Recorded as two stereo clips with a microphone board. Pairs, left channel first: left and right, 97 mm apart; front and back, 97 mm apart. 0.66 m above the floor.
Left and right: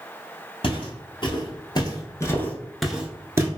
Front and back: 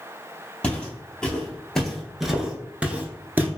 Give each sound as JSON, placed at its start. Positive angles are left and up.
{"t": 0.6, "sound": "footsteps", "azimuth_deg": 80, "distance_m": 1.3}